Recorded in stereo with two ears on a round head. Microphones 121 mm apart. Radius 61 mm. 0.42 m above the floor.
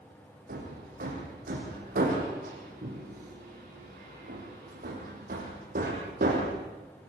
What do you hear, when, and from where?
0.5 s hammering: 65° right (ahead or behind), 8.5 m